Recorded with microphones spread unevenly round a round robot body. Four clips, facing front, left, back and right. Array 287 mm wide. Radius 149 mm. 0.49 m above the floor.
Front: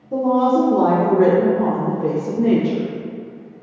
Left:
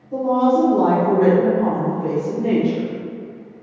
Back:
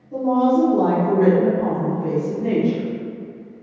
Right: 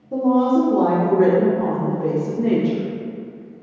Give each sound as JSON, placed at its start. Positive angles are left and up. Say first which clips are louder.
{"t": 0.1, "sound": "a woman speaking", "louder": "even, front 1 dB", "azimuth_deg": -20, "distance_m": 1.1}